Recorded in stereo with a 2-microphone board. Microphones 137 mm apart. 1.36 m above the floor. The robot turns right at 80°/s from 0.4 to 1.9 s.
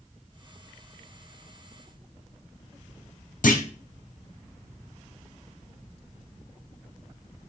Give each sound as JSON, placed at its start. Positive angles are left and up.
{"t": 3.4, "sound": "a clunk", "side_deg": 75, "distance_m": 0.5}